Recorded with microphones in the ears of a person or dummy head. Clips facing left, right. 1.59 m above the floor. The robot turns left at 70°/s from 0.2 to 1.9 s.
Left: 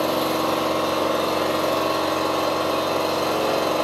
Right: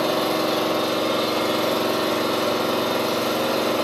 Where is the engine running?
15° left, 1.3 m; by 3.8 s 105° right, 1.3 m.